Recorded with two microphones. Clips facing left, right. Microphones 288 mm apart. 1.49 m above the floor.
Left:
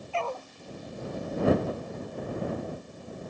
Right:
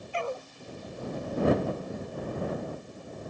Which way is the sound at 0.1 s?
15° right (ahead or behind).